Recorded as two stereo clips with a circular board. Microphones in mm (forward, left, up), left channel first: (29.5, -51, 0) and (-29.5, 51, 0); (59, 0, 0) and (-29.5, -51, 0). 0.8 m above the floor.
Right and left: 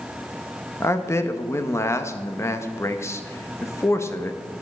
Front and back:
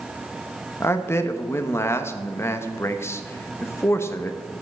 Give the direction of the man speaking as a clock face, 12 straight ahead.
12 o'clock.